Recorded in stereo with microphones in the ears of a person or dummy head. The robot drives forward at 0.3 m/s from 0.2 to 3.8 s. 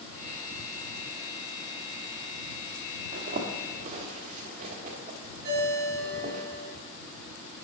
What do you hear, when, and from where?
3.1 s a zipper: 40° right (ahead or behind), 1.3 m; by 6.4 s 35° right (ahead or behind), 1.5 m
5.4 s a ringtone: 60° right (ahead or behind), 2.5 m